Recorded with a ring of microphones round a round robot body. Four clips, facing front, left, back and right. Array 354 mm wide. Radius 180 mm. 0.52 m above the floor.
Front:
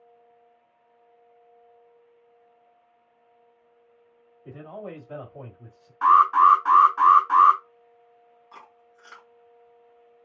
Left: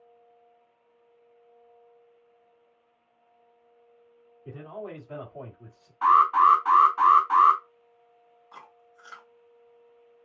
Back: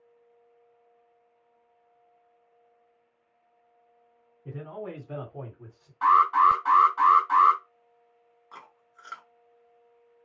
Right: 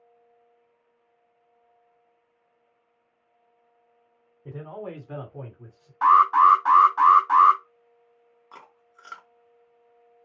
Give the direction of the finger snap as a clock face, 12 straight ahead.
I don't hear a finger snap.